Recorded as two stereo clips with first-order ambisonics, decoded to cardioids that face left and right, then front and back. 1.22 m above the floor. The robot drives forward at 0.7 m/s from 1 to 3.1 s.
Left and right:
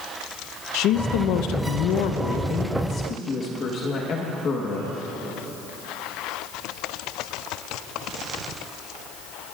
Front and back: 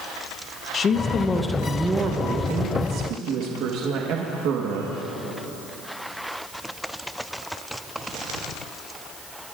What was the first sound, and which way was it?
A woman speaking, 65° left.